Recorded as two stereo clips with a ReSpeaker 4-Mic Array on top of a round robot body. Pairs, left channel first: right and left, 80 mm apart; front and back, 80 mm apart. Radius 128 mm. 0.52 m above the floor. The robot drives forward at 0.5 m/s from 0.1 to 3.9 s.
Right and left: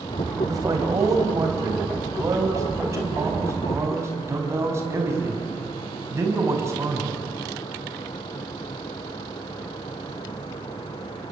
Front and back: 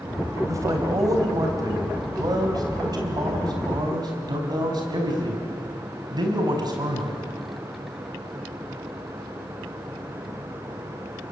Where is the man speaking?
130° left, 4 m; by 7.3 s 145° left, 5 m.